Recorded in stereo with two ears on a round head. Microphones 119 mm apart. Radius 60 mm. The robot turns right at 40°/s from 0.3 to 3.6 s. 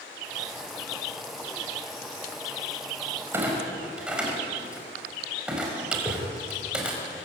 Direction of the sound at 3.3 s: 20° right (ahead or behind).